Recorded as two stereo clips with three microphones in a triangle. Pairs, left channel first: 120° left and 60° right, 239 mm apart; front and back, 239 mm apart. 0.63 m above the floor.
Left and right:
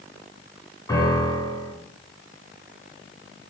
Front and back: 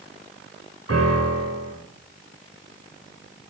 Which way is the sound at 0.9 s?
165° right.